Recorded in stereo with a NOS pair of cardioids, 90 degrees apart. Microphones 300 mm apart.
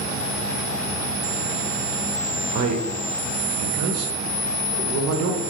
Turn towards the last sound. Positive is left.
turn(degrees=-55)